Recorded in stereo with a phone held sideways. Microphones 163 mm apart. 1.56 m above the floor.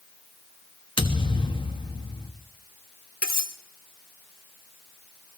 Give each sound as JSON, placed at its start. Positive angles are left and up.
{"t": 1.0, "sound": "a thud", "side_deg": 30, "distance_m": 1.1}
{"t": 3.2, "sound": "cutlery clinking", "side_deg": 65, "distance_m": 1.4}